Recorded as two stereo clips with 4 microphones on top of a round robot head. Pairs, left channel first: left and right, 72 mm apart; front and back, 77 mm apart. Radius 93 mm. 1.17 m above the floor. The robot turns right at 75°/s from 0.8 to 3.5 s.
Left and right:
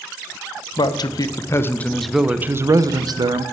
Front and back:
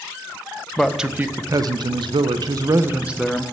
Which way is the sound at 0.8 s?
85° left.